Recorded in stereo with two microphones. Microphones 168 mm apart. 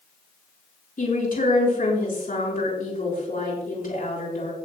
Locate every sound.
1.0 s a woman speaking: 55° left (ahead or behind), 6.5 m